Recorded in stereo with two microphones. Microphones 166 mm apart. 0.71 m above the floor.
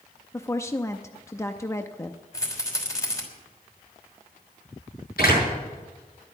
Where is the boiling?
I don't hear boiling.